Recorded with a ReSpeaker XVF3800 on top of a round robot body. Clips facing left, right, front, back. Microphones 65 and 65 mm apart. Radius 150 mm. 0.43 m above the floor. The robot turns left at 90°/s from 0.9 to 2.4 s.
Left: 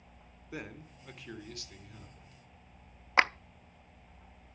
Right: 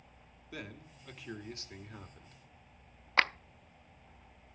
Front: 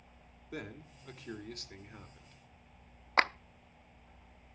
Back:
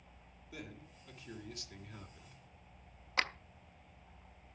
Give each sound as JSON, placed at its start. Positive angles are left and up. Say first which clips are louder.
{"t": 0.5, "sound": "a man speaking", "louder": "left 3 dB, front 6 dB", "azimuth_deg": 25, "distance_m": 2.5}
{"t": 3.2, "sound": "a clap", "louder": "left 3 dB, front 7 dB", "azimuth_deg": 20, "distance_m": 0.7}